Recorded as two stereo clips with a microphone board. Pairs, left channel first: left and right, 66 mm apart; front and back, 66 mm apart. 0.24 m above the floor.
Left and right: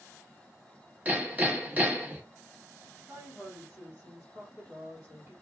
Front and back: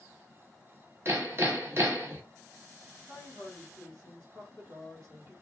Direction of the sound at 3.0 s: 150° right.